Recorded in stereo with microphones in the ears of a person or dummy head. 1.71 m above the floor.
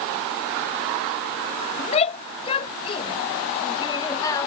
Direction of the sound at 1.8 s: 35° left (ahead or behind).